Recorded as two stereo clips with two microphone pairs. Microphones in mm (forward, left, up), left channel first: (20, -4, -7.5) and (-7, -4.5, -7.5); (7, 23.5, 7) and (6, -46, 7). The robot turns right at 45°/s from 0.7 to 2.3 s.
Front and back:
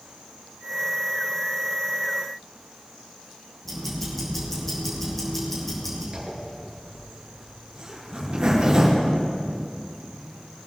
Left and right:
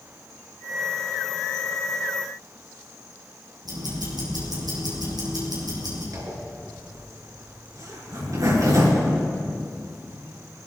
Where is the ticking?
80° right, 6 m.